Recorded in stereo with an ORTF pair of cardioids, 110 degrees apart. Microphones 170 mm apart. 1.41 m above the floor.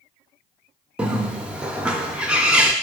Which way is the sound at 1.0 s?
5° right.